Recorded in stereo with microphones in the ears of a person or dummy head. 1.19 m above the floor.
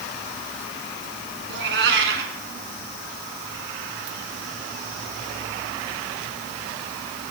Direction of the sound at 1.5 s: 65° right (ahead or behind).